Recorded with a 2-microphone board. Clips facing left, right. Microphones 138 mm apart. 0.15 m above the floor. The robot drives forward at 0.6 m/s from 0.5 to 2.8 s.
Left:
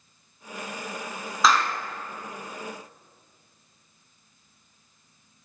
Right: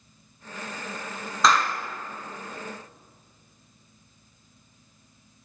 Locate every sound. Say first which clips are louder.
1.4 s a clap: even; centre (ahead or behind), 1.2 m